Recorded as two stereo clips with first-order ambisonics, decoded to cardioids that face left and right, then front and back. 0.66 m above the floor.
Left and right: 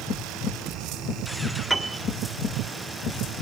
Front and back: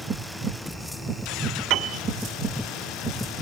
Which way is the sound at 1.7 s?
175° left.